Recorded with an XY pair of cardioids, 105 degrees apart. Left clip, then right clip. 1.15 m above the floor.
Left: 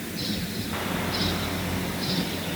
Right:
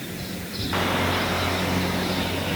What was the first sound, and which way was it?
Only background noise.